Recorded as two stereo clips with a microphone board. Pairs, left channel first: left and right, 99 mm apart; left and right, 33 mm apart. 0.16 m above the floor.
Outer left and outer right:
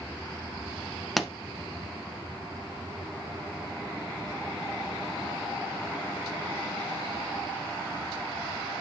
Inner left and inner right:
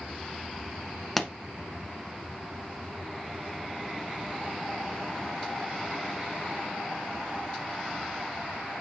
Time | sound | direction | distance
1.2 | a pop | centre (ahead or behind) | 0.8 m